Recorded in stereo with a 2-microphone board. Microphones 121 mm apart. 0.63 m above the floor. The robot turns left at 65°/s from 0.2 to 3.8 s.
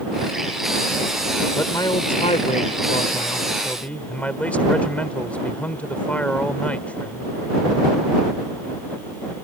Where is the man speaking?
160° left; by 7.3 s 15° left.